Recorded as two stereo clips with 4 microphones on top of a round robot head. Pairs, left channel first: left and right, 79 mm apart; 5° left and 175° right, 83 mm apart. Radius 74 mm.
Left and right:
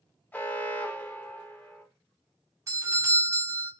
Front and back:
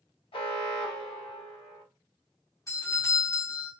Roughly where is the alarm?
Ahead.